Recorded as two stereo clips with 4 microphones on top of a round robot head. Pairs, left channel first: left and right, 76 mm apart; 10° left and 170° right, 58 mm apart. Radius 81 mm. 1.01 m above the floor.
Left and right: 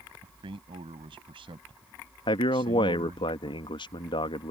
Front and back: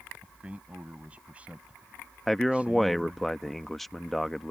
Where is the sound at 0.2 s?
100° right.